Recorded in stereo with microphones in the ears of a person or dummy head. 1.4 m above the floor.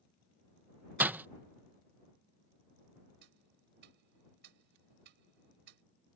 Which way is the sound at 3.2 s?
60° right (ahead or behind).